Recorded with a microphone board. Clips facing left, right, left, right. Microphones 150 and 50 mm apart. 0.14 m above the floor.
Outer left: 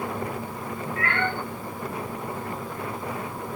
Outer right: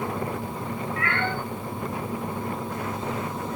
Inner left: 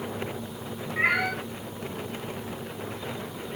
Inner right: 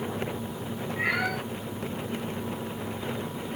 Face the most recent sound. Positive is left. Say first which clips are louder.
# outer left 2 dB, inner left 3 dB
turn(degrees=35)  # may be behind; listen again after turning